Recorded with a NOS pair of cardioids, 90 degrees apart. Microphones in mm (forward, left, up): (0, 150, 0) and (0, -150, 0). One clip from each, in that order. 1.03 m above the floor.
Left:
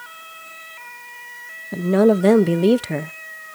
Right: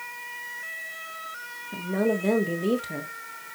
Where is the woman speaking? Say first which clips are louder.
Left 10 dB; 55° left, 0.7 m.